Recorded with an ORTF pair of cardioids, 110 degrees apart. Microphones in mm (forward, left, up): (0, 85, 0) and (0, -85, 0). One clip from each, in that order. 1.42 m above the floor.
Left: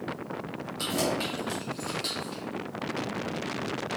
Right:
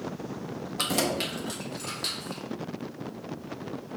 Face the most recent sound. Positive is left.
turn(degrees=-20)